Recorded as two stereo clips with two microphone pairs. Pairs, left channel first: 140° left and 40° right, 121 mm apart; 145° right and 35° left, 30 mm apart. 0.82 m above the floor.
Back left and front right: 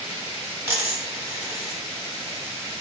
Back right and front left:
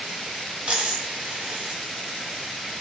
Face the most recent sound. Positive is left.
turn(degrees=25)